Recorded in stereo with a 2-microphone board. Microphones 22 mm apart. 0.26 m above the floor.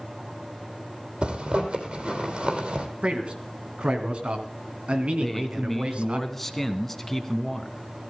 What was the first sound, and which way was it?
A zipper, 50° right (ahead or behind).